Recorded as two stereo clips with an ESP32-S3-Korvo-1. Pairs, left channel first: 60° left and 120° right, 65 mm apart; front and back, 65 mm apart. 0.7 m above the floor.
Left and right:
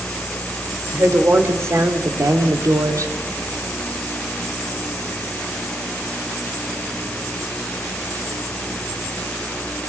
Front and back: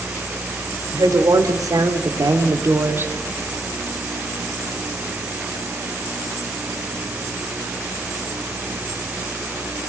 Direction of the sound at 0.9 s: 170° right.